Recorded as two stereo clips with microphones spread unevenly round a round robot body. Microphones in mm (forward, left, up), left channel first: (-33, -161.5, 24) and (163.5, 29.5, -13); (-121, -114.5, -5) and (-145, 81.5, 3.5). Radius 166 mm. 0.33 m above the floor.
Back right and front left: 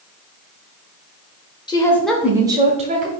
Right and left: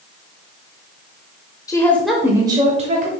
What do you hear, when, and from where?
1.7 s a woman speaking: 70° right, 0.9 m; by 3.1 s 70° left, 1.1 m